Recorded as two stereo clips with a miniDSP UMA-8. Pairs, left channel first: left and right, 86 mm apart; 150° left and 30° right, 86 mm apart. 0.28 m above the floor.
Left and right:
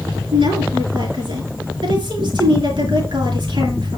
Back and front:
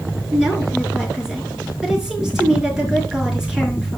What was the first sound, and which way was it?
A woman speaking, 110° right.